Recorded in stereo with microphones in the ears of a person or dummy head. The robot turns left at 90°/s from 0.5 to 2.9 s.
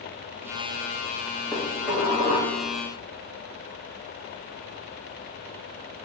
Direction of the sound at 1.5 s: 25° left.